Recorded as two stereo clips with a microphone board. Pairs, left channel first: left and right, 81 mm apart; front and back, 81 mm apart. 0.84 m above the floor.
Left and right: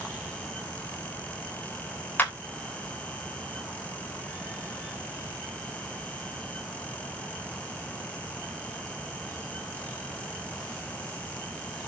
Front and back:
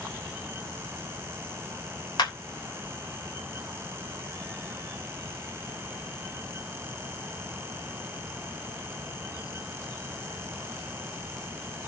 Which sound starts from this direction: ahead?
A clap, at 2.2 s.